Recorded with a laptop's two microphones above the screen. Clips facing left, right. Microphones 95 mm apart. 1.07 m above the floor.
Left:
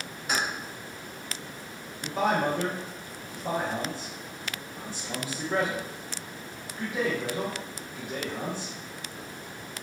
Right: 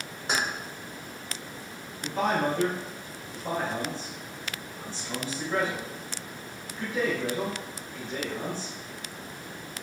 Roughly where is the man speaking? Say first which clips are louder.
Left 1 dB; centre.